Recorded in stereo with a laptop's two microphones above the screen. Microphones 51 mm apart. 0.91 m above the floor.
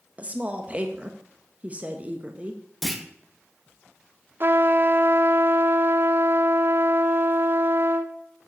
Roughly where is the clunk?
Centre.